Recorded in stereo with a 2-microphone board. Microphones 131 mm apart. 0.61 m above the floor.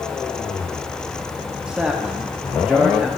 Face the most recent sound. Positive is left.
turn(degrees=-5)  # may be behind; listen again after turning